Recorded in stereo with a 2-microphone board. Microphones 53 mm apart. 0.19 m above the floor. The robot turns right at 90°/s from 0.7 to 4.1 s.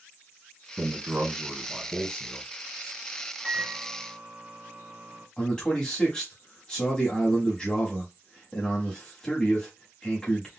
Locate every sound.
0.8 s a man speaking: 95° right, 1.4 m; by 2.5 s 60° left, 1.4 m
3.4 s a microwave: 160° left, 1.3 m; by 5.3 s 140° right, 1.3 m
5.4 s a man speaking: 15° left (ahead or behind), 1.2 m